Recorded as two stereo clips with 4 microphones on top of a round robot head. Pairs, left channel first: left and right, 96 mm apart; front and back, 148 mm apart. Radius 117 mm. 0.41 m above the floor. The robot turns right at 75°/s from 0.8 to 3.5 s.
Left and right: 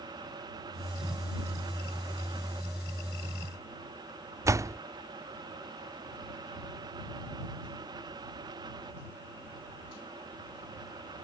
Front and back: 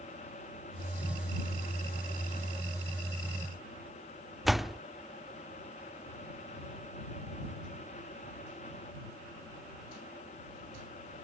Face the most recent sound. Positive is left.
turn(degrees=-90)